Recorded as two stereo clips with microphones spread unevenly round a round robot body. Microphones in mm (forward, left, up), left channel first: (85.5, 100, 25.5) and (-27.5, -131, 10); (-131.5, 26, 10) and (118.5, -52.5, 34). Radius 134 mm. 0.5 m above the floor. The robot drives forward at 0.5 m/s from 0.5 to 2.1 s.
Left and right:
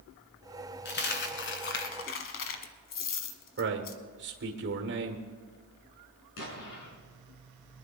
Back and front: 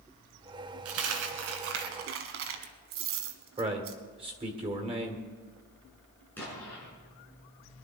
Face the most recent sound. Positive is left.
turn(degrees=80)